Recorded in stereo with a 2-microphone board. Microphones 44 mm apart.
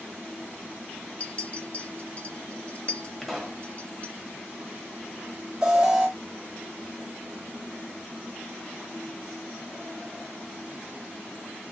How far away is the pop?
About 1.3 m.